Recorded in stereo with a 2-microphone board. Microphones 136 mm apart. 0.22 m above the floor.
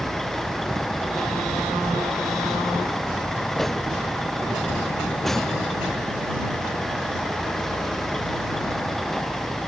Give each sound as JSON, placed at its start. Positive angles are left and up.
{"t": 0.0, "sound": "a vehicle", "side_deg": 5}